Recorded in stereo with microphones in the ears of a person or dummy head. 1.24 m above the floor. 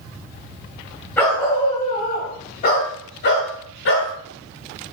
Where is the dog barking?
5° left (ahead or behind), 2.5 m; by 4.1 s 70° left (ahead or behind), 3 m.